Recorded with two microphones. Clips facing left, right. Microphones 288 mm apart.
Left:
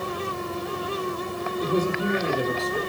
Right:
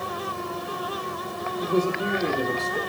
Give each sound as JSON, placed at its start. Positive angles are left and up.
{"t": 1.6, "sound": "a man speaking", "side_deg": 20, "distance_m": 3.5}